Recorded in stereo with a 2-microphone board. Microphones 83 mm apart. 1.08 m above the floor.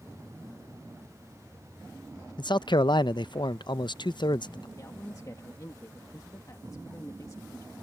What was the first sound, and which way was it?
A man speaking, 65° left (ahead or behind).